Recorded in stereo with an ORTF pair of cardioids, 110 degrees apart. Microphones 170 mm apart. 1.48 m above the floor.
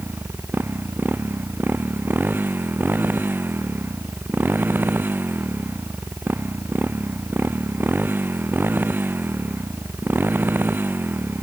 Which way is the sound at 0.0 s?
10° right.